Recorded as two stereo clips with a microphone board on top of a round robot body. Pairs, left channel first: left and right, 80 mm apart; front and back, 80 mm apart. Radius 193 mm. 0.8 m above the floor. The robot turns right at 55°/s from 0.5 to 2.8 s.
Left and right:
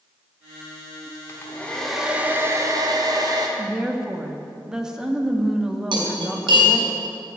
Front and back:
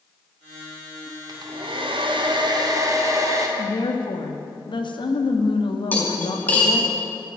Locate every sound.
1.3 s a hair dryer: 145° left, 1.8 m; by 3.5 s 130° right, 1.8 m
3.6 s a woman speaking: 10° right, 1.9 m
5.9 s cutlery clinking: 70° right, 3.5 m